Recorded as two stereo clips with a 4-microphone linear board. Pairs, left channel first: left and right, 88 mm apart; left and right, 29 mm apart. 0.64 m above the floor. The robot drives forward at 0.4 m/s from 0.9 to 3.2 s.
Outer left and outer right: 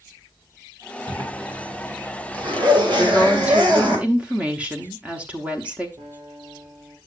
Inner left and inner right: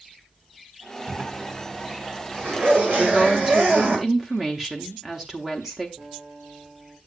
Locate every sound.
1.1 s a zipper: 70° right (ahead or behind), 3.5 m; by 4.0 s 65° right (ahead or behind), 3.5 m
3.0 s a woman speaking: 15° right (ahead or behind), 1.0 m
6.0 s a guitar: 75° right (ahead or behind), 4 m